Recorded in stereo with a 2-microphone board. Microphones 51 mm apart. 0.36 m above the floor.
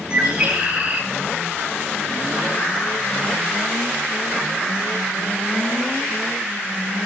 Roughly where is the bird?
Centre.